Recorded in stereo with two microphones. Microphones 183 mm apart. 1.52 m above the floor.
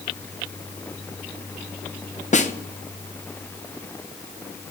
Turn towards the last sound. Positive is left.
turn(degrees=40)  # may be behind; listen again after turning